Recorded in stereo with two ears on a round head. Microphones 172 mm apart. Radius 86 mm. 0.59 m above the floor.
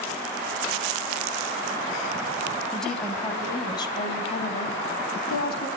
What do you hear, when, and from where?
2.7 s a woman speaking: centre (ahead or behind), 4 m; by 5.7 s 55° left (ahead or behind), 5 m